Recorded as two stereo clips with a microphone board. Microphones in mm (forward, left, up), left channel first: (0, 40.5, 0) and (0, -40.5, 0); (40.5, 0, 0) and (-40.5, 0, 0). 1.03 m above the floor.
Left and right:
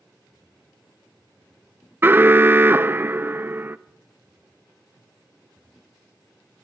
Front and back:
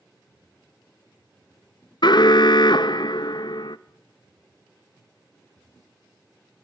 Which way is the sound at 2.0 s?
25° right.